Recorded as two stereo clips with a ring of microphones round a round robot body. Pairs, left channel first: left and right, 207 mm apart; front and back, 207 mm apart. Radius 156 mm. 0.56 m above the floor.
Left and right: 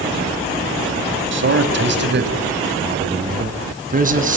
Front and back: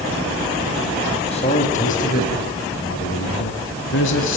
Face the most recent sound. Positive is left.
turn(degrees=-40)